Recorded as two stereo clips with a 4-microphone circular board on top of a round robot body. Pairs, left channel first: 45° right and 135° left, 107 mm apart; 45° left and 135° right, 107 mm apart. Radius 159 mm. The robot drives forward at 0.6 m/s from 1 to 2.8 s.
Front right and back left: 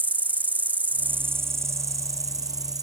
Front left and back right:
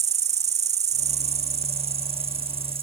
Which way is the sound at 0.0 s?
150° right.